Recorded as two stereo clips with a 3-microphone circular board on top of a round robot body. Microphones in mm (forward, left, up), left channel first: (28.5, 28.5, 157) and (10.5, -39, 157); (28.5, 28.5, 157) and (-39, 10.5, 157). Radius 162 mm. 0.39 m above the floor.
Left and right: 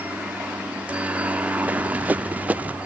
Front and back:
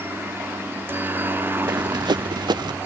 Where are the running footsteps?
175° right.